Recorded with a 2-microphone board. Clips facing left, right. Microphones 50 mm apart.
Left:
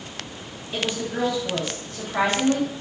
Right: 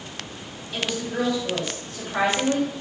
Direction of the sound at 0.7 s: 20° left (ahead or behind).